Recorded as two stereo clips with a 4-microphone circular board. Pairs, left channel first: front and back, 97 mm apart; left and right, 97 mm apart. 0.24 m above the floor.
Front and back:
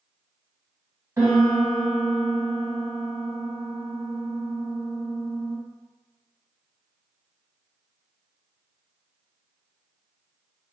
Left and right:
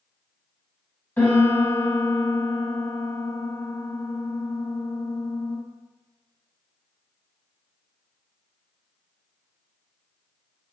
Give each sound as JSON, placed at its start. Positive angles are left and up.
{"t": 1.2, "sound": "a piano", "azimuth_deg": 145, "distance_m": 1.6}